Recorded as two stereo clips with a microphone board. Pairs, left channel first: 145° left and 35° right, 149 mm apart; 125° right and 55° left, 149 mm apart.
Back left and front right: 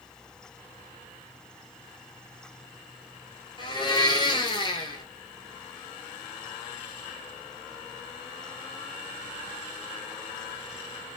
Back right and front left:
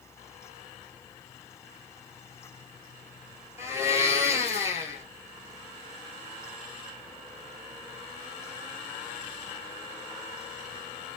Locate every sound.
3.6 s a blender: 115° left, 0.5 m